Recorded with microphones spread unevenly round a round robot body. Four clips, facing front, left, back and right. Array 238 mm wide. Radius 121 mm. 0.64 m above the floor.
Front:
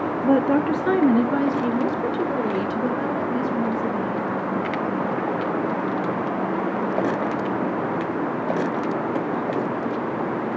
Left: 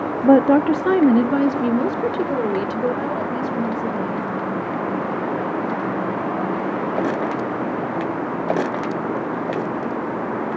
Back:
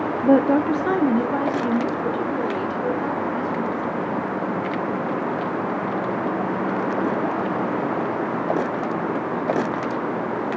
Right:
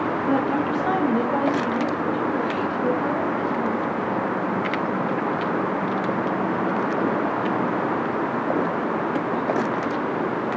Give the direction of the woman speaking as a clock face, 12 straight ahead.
9 o'clock.